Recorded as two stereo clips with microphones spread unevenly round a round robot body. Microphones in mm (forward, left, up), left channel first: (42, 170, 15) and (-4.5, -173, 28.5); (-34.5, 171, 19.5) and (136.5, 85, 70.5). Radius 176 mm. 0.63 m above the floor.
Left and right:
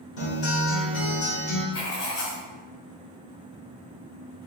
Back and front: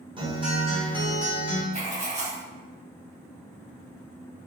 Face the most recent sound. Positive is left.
turn(degrees=30)